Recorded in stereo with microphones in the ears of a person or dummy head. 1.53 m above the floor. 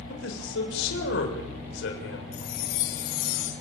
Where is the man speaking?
75° left (ahead or behind), 7.5 m.